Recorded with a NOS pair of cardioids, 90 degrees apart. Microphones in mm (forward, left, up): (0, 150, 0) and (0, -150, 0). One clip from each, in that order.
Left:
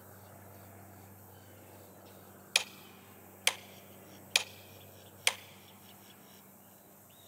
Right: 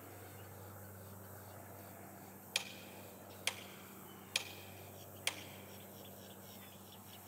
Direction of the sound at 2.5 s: 45° left.